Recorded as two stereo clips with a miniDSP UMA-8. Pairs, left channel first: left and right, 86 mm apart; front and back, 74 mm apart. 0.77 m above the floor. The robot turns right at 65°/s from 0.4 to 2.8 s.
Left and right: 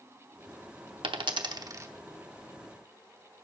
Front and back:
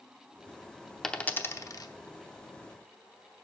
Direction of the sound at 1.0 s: 85° right.